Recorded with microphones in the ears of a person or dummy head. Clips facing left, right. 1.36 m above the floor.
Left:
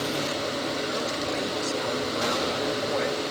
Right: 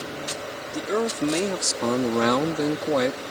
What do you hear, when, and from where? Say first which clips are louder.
0.7 s a man speaking: right 4 dB; 65° right (ahead or behind); by 3.2 s 55° right (ahead or behind)